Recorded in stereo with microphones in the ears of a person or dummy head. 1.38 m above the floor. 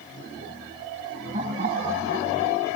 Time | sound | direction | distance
1.3 | laughter | 40° right (ahead or behind) | ?